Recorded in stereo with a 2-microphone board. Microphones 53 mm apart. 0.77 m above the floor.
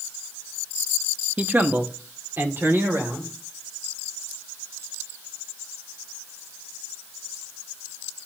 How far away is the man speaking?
About 0.7 m.